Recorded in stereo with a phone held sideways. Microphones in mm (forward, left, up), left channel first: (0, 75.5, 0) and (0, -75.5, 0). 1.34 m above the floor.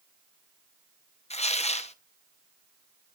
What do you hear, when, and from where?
1.3 s tearing paper: 50° left (ahead or behind), 0.8 m